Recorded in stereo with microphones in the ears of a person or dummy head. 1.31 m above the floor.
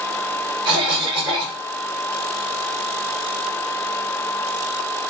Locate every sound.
0.7 s a cough: 30° right (ahead or behind), 4.5 m